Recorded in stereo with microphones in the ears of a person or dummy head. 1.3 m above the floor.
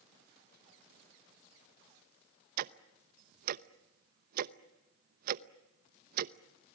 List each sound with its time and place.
2.6 s ticking: 60° right (ahead or behind), 0.8 m